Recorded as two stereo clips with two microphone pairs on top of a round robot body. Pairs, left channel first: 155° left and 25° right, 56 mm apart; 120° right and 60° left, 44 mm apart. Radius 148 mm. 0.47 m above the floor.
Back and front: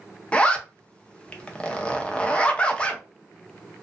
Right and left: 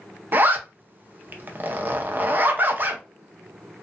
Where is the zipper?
90° left, 0.7 m.